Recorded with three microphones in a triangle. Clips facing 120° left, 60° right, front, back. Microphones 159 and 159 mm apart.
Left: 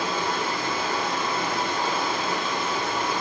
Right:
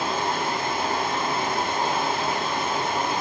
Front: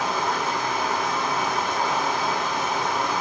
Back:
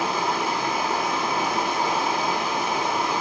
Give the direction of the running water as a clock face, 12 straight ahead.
3 o'clock.